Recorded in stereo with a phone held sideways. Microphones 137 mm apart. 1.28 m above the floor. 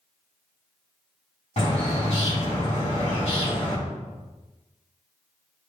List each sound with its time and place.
1.6 s a bird: 55° left (ahead or behind), 2.5 m